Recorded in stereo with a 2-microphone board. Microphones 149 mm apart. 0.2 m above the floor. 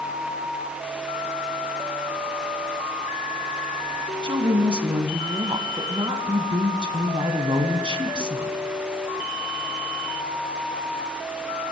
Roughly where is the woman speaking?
Right.